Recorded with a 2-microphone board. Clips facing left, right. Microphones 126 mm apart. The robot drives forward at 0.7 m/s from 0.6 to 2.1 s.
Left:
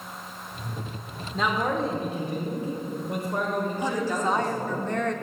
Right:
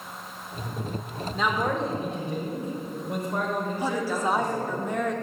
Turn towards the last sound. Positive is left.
turn(degrees=-10)  # may be behind; listen again after turning